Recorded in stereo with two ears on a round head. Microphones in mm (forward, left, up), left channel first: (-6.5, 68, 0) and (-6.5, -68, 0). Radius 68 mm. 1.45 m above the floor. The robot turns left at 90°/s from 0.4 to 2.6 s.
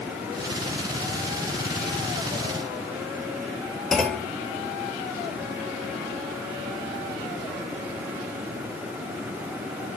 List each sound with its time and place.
3.9 s a clunk: 5° left (ahead or behind), 1.3 m